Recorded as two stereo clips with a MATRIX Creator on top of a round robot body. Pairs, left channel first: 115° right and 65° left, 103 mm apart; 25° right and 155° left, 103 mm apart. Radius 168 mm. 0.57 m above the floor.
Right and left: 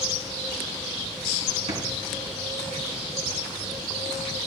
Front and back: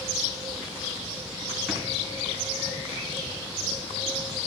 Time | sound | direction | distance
1.7 | a drawer | 75° left | 3.5 m